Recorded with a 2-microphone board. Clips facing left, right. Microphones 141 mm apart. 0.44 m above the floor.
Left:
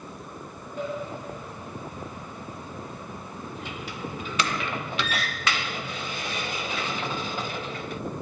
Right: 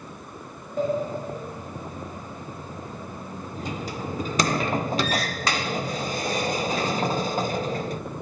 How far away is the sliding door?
About 0.7 m.